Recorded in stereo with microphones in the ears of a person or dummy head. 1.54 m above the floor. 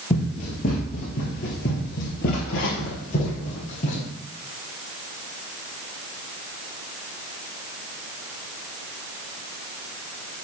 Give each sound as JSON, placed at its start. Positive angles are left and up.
{"t": 0.1, "sound": "running footsteps", "side_deg": 35, "distance_m": 2.0}